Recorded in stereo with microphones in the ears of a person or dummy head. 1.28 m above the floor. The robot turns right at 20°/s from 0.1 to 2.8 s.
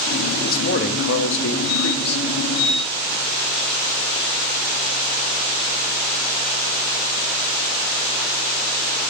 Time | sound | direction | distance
0.5 | a man speaking | 50° left | 0.5 m